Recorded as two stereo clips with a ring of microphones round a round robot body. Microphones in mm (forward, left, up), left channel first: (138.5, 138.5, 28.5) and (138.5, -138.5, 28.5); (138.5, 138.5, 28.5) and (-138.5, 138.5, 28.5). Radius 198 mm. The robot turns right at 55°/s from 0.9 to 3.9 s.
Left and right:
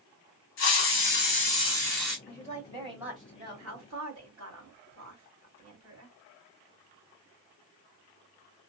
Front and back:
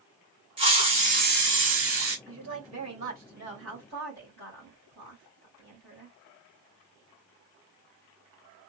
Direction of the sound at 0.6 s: 115° left.